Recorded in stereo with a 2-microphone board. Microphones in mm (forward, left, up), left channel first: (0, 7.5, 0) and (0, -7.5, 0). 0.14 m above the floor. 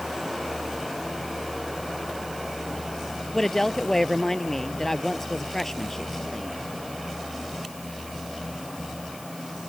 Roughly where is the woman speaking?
Left.